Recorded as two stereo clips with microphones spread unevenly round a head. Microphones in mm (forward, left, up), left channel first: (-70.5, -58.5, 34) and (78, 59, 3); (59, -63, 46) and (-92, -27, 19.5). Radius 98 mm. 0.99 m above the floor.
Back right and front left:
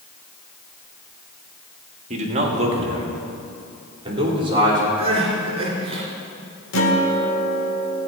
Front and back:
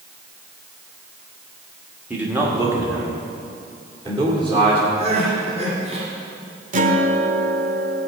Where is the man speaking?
85° left, 1.7 m; by 4.8 s 105° left, 3.5 m.